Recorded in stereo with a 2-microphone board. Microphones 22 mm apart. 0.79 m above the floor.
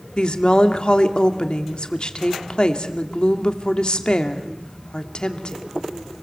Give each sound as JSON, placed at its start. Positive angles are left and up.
{"t": 0.2, "sound": "a woman speaking", "side_deg": 45, "distance_m": 1.9}